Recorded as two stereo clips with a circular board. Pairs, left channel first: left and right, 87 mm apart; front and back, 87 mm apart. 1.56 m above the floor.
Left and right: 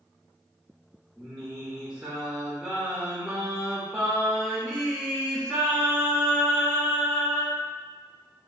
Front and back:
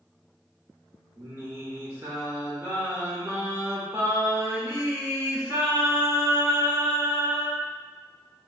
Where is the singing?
175° right, 1.3 m.